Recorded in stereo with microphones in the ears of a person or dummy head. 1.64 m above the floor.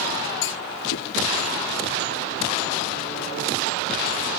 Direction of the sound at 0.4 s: 75° left (ahead or behind).